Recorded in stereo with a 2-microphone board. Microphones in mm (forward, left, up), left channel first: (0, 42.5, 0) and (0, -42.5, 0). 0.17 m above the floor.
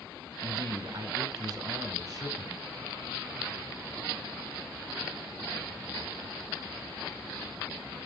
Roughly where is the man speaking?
Right.